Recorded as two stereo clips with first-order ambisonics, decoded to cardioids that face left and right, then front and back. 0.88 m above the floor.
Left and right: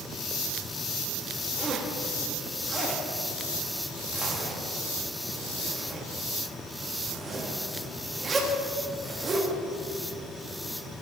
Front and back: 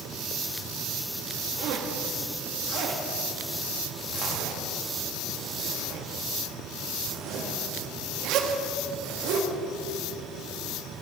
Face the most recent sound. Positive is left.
turn(degrees=-160)